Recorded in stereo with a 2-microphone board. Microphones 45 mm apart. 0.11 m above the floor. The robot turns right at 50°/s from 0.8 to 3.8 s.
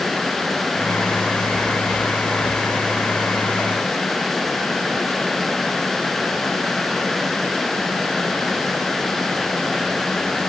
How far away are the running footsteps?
I don't hear running footsteps.